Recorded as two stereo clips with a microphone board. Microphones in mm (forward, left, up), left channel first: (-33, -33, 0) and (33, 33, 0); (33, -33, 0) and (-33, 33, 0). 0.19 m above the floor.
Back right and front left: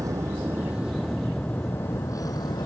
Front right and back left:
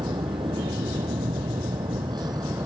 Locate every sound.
0.0 s a vehicle: 100° left; by 2.7 s 175° right